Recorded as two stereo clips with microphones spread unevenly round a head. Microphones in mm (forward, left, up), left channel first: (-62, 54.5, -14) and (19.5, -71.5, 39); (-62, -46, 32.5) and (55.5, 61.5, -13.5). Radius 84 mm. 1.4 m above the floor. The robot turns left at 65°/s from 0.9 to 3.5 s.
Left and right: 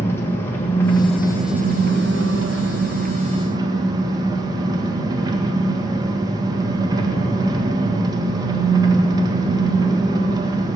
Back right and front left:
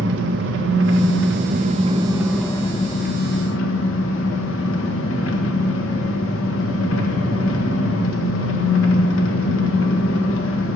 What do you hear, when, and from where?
0.0 s an engine running: 45° left, 1.6 m; by 10.8 s 125° right, 1.6 m